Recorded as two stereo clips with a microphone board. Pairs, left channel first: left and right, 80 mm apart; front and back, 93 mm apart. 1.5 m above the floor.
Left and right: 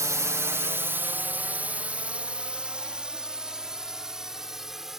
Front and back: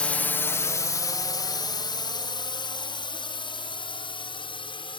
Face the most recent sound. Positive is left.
turn(degrees=-5)